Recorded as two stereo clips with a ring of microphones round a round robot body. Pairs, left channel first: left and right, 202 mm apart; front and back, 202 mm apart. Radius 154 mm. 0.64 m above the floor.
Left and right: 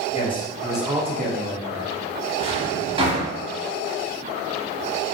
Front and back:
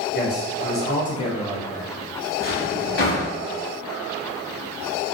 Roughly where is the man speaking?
Ahead left.